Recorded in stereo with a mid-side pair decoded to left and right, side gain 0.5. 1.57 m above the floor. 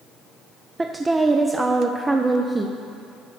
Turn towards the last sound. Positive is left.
turn(degrees=-20)